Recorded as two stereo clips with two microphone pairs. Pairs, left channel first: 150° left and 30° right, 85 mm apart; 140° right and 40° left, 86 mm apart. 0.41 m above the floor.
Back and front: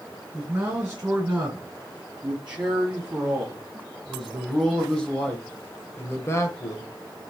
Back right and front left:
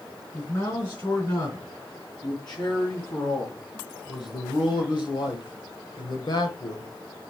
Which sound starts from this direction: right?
A man speaking, at 0.3 s.